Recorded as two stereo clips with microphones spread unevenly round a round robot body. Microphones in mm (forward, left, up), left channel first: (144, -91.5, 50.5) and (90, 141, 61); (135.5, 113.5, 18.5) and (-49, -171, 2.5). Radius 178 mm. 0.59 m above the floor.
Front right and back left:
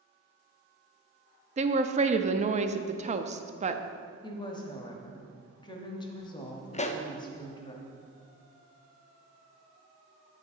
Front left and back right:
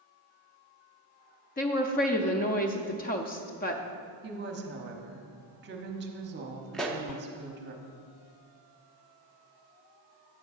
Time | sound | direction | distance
1.6 | a woman speaking | 90° left | 0.6 m
4.2 | a woman speaking | 125° right | 1.0 m
6.7 | a pop | 35° right | 0.8 m